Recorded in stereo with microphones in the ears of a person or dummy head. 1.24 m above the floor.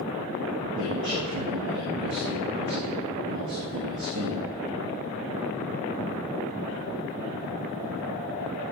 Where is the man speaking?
60° right (ahead or behind), 2.5 m.